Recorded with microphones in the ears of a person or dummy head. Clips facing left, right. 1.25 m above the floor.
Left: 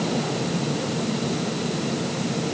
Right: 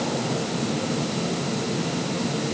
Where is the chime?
No chime in this recording.